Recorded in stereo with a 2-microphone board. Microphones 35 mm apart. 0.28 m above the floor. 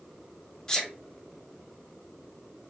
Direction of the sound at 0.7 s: 15° left (ahead or behind).